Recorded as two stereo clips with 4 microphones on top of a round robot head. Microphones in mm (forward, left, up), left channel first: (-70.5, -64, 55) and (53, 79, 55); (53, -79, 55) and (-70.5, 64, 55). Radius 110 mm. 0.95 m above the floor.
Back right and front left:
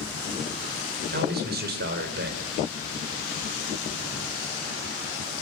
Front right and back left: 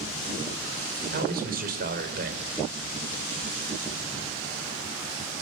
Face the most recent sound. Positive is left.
turn(degrees=85)